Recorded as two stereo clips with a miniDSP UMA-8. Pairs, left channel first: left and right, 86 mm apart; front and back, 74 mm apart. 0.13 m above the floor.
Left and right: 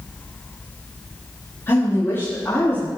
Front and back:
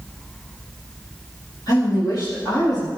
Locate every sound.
1.7 s a woman speaking: 30° left, 5.5 m